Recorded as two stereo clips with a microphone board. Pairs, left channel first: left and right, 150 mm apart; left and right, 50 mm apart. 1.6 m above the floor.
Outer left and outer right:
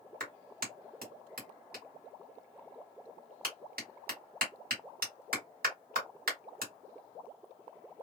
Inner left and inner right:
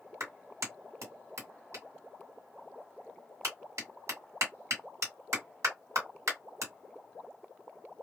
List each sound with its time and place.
0.2 s a clap: 85° right, 1.8 m